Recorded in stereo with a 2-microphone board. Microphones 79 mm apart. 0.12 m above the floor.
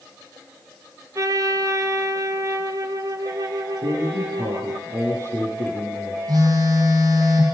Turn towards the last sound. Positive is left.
turn(degrees=-50)  # may be behind; listen again after turning